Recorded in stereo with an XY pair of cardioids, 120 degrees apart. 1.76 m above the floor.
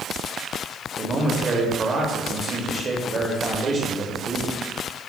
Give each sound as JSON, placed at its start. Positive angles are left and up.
{"t": 1.0, "sound": "a man speaking", "azimuth_deg": -30, "distance_m": 1.0}